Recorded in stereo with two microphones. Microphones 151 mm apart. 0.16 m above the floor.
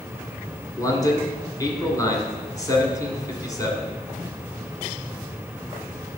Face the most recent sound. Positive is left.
turn(degrees=20)  # may be behind; listen again after turning